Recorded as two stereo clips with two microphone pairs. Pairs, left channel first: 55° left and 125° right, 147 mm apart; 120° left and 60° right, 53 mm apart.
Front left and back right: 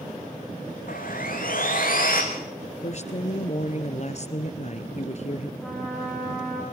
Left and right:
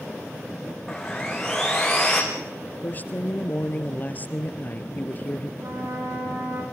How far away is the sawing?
About 5.5 m.